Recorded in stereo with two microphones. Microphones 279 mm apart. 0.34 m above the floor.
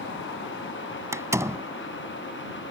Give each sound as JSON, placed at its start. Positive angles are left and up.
{"t": 1.1, "sound": "a door slam", "side_deg": -10}